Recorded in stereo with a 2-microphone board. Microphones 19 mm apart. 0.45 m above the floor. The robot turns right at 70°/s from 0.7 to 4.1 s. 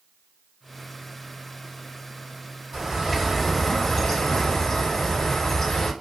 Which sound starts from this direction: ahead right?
A bird, at 2.7 s.